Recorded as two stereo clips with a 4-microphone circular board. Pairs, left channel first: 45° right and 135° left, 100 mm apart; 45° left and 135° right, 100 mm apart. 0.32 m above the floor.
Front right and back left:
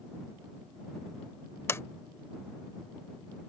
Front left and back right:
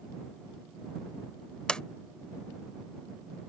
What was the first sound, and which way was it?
A sliding door, 25° right.